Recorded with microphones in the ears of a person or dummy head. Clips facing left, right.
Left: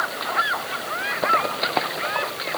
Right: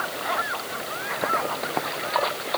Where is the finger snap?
No finger snap in this recording.